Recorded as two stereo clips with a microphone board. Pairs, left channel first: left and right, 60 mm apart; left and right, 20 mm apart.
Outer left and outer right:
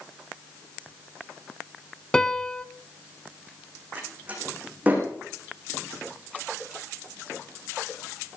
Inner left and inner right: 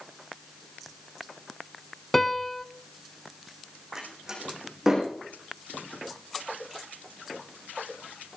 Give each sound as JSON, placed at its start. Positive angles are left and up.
{"t": 2.1, "sound": "a piano", "side_deg": 15, "distance_m": 0.6}
{"t": 4.0, "sound": "a door slam", "side_deg": -30, "distance_m": 7.5}